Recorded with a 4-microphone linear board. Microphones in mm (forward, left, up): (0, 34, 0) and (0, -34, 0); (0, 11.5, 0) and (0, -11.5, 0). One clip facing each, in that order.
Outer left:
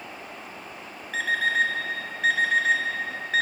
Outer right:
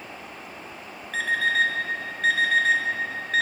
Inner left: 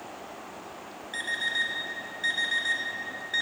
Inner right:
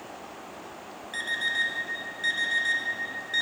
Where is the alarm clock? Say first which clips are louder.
Outer right 1 dB, inner right 1 dB; 5° left (ahead or behind), 0.9 m.